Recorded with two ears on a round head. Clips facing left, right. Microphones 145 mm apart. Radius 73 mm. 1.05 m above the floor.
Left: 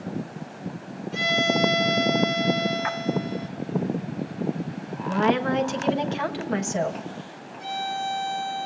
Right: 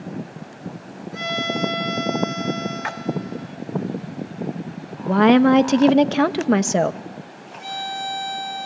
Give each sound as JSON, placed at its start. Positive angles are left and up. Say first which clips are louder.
{"t": 1.1, "sound": "a violin", "louder": "left 2 dB", "side_deg": 35, "distance_m": 3.5}
{"t": 2.8, "sound": "a splash", "louder": "left 1 dB", "side_deg": -35, "distance_m": 1.0}
{"t": 5.0, "sound": "a woman speaking", "louder": "right 9 dB", "side_deg": -65, "distance_m": 1.3}
{"t": 7.6, "sound": "a violin", "louder": "even", "side_deg": -15, "distance_m": 2.0}